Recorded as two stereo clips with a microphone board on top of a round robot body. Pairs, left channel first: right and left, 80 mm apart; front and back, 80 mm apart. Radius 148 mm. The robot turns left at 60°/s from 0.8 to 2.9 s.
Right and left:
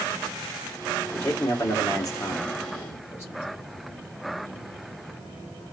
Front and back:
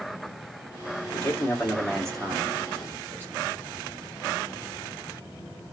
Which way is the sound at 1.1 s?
25° right.